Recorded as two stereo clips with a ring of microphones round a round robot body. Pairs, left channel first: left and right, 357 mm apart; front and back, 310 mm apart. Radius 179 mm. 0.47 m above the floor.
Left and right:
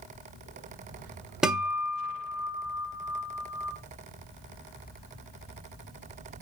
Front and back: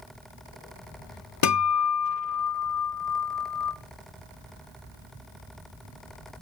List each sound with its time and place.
1.4 s a guitar: straight ahead, 1.4 m